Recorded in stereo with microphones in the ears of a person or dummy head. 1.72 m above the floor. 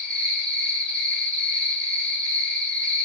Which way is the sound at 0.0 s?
15° right (ahead or behind).